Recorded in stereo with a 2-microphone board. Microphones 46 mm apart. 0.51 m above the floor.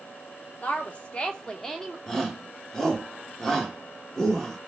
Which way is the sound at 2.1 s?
15° left (ahead or behind).